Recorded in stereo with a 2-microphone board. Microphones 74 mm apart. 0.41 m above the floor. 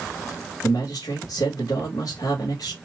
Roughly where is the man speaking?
Left.